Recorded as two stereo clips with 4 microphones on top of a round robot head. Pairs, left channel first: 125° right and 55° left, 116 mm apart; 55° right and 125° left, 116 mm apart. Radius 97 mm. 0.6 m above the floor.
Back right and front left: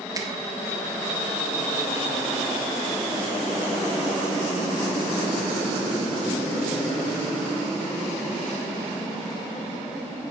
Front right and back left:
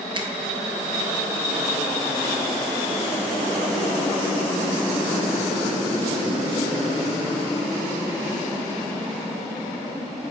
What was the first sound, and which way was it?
A finger snap, 100° left.